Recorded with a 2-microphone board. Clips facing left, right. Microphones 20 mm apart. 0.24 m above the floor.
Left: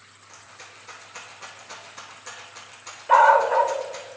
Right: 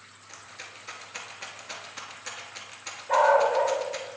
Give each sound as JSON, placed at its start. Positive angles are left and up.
{"t": 0.3, "sound": "a rattle", "side_deg": -25, "distance_m": 1.1}
{"t": 3.1, "sound": "a dog barking", "side_deg": 50, "distance_m": 0.7}